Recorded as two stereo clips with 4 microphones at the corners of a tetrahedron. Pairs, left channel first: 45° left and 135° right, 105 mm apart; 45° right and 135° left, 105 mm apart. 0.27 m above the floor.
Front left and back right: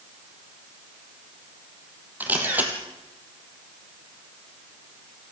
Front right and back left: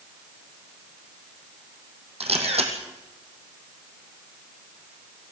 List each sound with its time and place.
2.2 s a camera shutter: 150° left, 3 m